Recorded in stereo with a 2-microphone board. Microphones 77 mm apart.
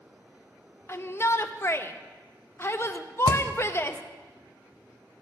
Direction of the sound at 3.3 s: 60° right (ahead or behind).